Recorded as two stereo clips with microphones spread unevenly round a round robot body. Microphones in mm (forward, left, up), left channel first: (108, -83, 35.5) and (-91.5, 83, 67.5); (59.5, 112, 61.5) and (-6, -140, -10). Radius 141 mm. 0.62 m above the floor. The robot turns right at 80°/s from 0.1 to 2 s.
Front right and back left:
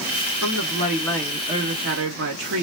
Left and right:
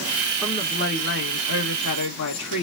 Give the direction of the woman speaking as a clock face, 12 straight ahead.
1 o'clock.